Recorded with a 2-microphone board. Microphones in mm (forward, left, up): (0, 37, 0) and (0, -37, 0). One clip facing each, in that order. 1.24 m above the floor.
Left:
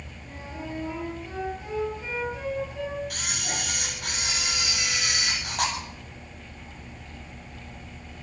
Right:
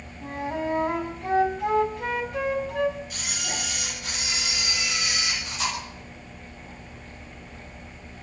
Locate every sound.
0.2 s a flute: 65° right (ahead or behind), 4 m
3.1 s a camera shutter: 60° left (ahead or behind), 8 m